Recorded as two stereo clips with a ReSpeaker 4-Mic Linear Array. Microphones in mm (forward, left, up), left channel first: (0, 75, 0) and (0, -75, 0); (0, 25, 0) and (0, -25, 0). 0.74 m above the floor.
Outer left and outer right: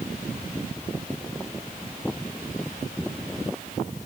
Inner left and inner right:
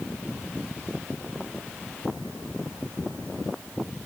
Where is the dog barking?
I don't hear a dog barking.